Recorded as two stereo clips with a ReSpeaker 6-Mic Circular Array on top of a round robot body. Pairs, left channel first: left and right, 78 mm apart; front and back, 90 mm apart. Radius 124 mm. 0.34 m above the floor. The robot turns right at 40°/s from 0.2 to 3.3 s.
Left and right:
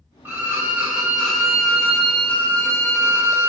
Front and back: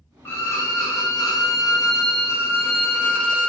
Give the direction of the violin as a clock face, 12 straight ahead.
2 o'clock.